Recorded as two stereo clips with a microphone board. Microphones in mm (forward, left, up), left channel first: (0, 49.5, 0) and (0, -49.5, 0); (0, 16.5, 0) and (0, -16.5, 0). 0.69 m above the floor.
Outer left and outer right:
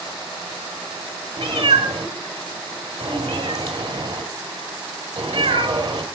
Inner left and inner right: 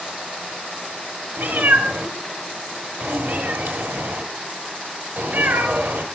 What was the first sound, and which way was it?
A cat meowing, 85° right.